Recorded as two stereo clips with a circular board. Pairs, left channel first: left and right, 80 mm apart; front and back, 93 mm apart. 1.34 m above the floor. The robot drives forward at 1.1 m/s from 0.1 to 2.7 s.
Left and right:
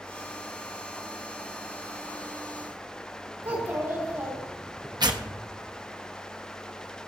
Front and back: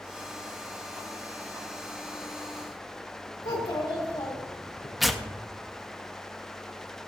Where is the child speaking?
25° right, 2.5 m.